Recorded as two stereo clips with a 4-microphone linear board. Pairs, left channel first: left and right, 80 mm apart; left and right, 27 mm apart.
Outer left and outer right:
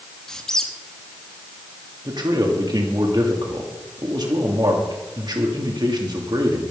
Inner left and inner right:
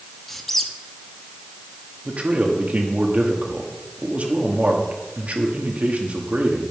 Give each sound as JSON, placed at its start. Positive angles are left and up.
{"t": 0.3, "sound": "a squeak", "side_deg": 10, "distance_m": 1.1}
{"t": 2.0, "sound": "a man speaking", "side_deg": -60, "distance_m": 2.5}